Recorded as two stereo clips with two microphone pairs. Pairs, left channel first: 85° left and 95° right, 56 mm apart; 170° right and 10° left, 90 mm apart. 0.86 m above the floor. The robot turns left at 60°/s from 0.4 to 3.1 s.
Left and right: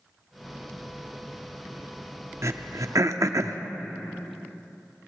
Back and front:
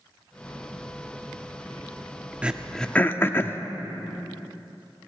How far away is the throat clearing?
About 0.6 m.